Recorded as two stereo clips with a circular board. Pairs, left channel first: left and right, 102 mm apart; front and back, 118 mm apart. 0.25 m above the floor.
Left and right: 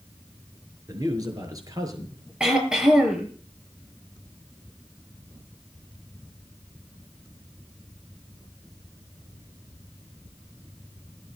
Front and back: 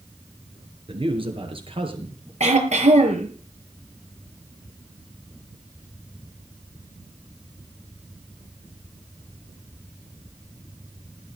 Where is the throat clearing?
170° right, 5.5 m.